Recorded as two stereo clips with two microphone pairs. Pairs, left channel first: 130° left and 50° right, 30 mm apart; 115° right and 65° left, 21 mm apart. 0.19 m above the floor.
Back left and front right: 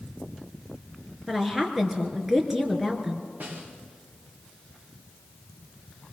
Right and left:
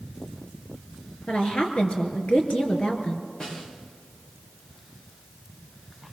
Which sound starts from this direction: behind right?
A woman speaking, at 1.3 s.